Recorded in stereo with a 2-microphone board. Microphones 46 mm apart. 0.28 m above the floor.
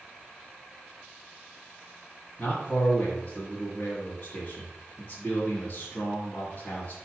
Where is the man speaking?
30° left (ahead or behind), 2 m.